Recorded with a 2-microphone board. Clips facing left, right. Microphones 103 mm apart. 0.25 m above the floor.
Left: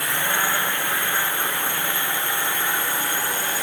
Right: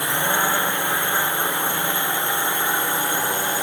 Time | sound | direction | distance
0.0 | a drone | 20° right (ahead or behind) | ?